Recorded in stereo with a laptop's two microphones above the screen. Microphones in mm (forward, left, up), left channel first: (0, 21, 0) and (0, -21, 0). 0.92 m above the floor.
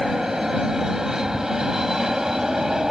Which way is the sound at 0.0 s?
15° right (ahead or behind).